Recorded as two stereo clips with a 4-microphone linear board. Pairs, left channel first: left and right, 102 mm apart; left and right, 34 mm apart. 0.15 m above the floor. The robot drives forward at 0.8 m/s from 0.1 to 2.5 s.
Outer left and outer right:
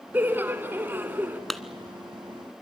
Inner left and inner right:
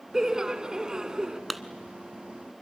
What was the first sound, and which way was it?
Laughter, 20° right (ahead or behind).